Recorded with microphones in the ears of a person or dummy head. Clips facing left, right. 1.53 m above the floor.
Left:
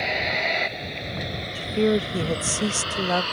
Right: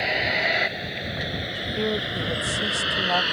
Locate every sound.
0.0 s a vehicle: 5° right (ahead or behind); by 3.3 s 15° right (ahead or behind)
1.6 s a woman speaking: 35° left (ahead or behind)